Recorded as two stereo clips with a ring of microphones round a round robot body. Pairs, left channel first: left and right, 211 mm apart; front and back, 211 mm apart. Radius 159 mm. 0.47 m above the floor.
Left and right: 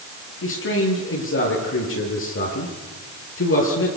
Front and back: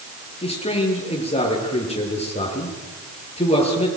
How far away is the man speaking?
About 9.5 m.